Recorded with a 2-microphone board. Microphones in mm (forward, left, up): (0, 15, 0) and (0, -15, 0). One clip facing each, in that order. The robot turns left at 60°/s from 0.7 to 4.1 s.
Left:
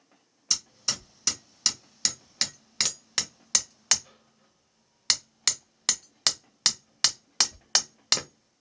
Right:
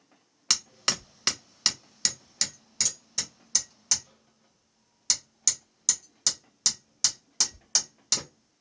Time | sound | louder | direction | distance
0.5 | hammering | right 3 dB | 80° right | 0.7 m